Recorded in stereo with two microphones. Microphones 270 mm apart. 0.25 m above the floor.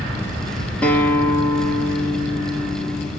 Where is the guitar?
5° left (ahead or behind), 1.5 m.